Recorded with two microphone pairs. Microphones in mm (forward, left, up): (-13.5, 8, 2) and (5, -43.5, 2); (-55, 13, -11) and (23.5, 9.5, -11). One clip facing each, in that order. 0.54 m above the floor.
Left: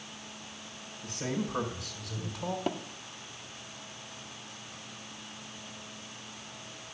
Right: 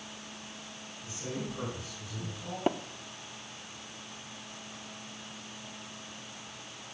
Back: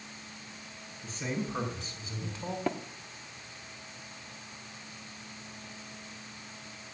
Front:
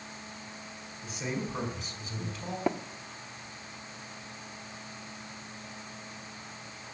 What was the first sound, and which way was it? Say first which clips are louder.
A man speaking: left 4 dB, even; 75° left.